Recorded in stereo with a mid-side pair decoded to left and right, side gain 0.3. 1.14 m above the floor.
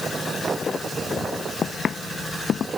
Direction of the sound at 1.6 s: 65° left.